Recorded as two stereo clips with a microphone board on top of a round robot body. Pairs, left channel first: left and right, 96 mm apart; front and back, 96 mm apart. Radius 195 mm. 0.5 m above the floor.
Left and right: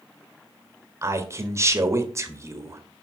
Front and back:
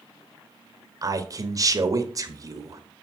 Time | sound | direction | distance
1.0 | a man speaking | 140° right | 1.8 m